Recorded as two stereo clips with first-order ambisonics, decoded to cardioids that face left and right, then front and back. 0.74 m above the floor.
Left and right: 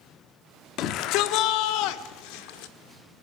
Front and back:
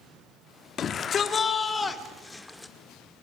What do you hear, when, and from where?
0.8 s a shout: 55° left, 1.5 m; by 2.7 s 85° left, 2 m